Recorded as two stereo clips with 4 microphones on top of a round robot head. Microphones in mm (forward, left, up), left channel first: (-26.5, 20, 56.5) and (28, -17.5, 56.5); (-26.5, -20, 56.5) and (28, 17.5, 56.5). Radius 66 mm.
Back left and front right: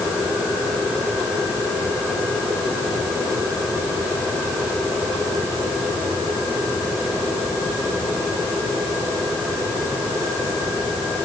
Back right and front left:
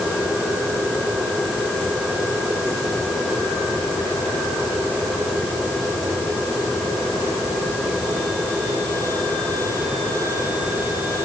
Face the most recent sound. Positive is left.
No sound to turn to.